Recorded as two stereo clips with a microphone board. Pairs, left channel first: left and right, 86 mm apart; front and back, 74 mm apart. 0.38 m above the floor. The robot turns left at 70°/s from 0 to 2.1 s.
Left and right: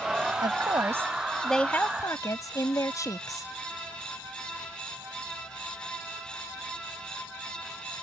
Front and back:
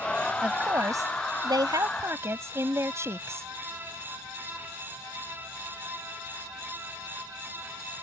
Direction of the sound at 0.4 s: 110° right.